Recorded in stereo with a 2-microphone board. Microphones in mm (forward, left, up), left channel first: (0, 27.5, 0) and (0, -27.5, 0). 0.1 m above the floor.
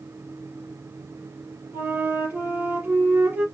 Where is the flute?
35° right (ahead or behind), 2.5 m.